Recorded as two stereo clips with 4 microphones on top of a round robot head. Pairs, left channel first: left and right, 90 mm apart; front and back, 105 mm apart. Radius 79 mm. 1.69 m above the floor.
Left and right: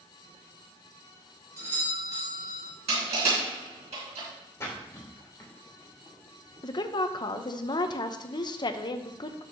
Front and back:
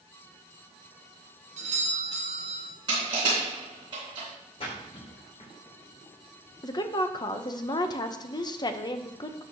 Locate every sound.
1.6 s a doorbell: 150° right, 3.5 m
2.9 s crushing: 120° right, 4 m
4.6 s a splash: 30° left, 3 m
6.6 s a woman speaking: 50° left, 0.9 m